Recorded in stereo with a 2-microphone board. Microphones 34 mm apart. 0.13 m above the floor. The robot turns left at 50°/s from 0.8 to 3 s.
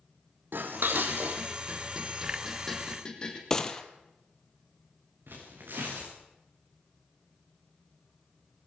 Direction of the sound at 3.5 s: 15° left (ahead or behind).